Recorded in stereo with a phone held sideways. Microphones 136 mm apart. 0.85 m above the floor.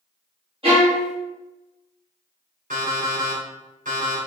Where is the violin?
45° right (ahead or behind), 1.5 m.